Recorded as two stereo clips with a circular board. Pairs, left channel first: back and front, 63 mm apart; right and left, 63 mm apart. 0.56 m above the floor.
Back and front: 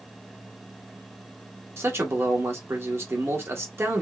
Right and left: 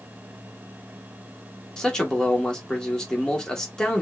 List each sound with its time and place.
1.8 s a man speaking: 15° right, 1.5 m